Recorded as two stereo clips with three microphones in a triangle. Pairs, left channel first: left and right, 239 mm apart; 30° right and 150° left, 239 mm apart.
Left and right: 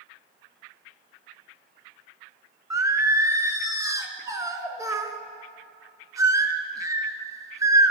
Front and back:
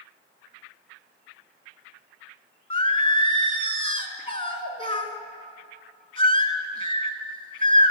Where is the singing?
35° right, 0.6 m.